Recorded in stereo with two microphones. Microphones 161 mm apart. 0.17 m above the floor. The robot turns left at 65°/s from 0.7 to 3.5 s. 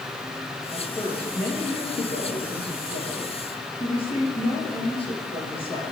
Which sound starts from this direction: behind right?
A woman speaking, at 0.7 s.